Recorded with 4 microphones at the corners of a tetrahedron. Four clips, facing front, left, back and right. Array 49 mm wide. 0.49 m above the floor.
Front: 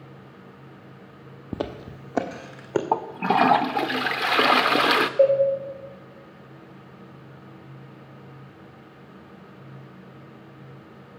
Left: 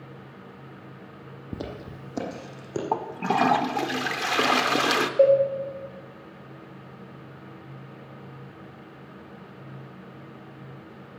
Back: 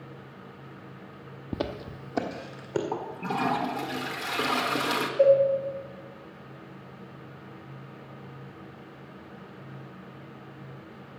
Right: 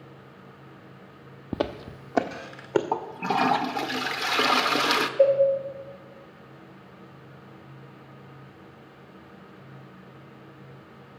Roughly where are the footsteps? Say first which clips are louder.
Right 7 dB, front 2 dB; right.